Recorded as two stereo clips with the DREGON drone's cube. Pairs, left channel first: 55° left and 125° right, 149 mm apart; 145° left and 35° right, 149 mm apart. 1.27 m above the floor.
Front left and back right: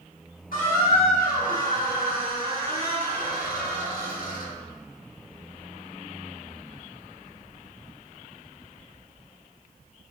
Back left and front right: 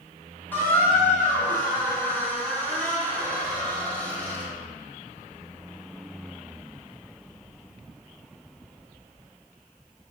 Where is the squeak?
70° left, 1.2 m.